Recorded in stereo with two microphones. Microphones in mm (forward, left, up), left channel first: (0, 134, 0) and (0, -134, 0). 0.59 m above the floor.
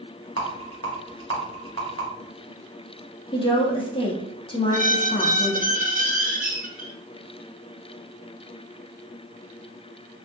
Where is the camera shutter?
No camera shutter in this recording.